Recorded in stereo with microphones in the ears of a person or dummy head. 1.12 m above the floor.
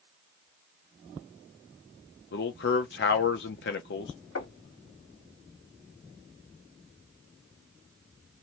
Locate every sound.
2.3 s a man speaking: 55° left (ahead or behind), 0.7 m
4.3 s knocking: 80° left, 1.5 m